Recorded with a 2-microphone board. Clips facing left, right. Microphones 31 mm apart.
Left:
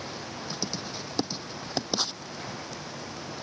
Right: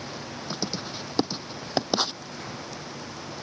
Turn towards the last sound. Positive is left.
turn(degrees=-25)  # may be behind; listen again after turning